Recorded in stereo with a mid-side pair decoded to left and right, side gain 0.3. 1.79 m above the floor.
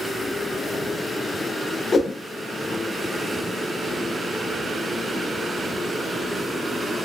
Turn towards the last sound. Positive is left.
turn(degrees=55)